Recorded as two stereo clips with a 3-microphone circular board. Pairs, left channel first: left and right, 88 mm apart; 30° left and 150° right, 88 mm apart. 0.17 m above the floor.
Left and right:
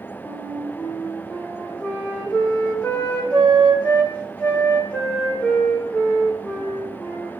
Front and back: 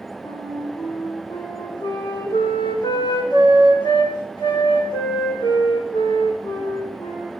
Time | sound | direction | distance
0.2 | a flute | 15° left | 7 m